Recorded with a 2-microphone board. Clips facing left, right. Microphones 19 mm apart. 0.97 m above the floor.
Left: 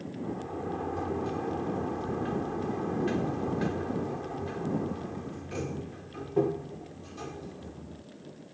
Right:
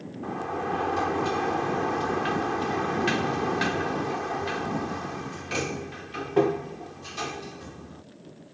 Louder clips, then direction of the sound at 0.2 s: Right 7 dB; 75° right (ahead or behind).